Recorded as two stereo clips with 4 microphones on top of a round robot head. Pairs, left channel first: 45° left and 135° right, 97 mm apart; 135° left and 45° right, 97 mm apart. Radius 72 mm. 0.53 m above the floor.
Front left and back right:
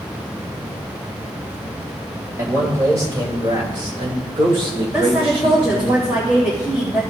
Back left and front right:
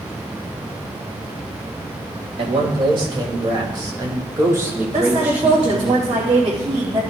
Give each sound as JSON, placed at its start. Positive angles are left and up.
{"t": 2.4, "sound": "a man speaking", "azimuth_deg": -75, "distance_m": 2.5}
{"t": 4.9, "sound": "a woman speaking", "azimuth_deg": -70, "distance_m": 2.5}